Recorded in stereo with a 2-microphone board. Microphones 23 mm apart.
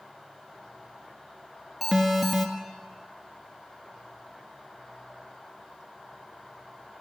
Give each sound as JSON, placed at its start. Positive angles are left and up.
{"t": 1.8, "sound": "an alarm", "side_deg": 0, "distance_m": 1.3}